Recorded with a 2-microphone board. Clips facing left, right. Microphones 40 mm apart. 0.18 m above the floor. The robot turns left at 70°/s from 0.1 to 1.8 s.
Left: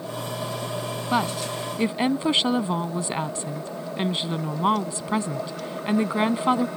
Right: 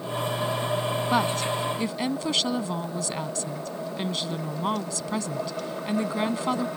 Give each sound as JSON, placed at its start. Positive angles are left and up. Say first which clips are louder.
{"t": 1.1, "sound": "a woman speaking", "louder": "left 1 dB", "azimuth_deg": 175}